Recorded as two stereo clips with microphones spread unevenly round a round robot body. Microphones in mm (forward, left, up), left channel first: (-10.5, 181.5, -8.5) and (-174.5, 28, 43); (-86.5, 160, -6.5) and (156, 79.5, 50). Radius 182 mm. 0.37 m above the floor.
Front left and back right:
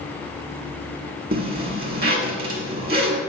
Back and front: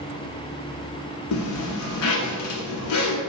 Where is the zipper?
170° left, 1.0 m.